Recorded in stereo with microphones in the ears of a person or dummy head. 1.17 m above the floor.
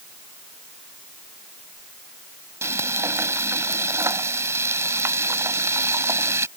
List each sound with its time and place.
2.6 s frying: 15° right (ahead or behind)